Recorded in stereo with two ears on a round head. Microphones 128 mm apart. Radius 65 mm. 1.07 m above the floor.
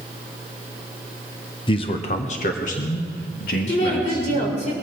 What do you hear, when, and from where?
1.7 s a man speaking: 35° left (ahead or behind), 0.9 m; by 4.5 s 75° left (ahead or behind), 2.5 m
3.7 s a woman speaking: 55° left (ahead or behind), 4 m